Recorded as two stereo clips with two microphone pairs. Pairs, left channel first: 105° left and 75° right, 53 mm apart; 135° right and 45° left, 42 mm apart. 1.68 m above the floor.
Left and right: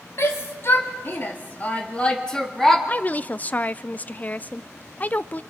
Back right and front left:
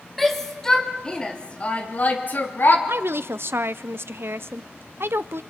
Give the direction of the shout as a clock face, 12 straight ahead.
7 o'clock.